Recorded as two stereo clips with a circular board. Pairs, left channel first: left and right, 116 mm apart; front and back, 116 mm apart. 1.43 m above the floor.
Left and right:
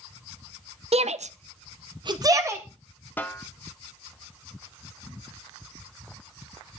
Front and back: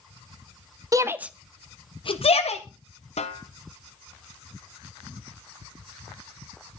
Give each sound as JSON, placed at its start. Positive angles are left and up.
{"t": 0.9, "sound": "a shout", "azimuth_deg": -120, "distance_m": 0.9}
{"t": 3.2, "sound": "a snare drum", "azimuth_deg": 15, "distance_m": 1.2}